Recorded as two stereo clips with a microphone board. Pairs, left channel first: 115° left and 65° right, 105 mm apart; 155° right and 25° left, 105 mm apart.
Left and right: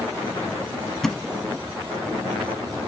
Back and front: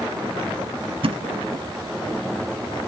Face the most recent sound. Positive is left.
turn(degrees=25)